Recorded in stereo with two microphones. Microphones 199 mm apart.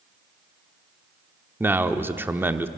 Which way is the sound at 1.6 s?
10° right (ahead or behind).